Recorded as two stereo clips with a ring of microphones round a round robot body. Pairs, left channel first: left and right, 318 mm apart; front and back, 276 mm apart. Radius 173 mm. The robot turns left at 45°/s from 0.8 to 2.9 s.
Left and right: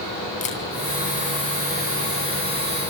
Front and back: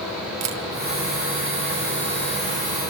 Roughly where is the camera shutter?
Behind left.